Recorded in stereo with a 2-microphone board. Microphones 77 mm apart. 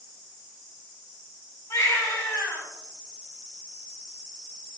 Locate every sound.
1.7 s a baby crying: 50° left (ahead or behind), 3.5 m